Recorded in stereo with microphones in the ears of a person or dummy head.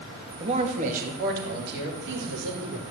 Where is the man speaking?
30° right (ahead or behind), 2.5 m; by 2.8 s 70° right (ahead or behind), 5 m.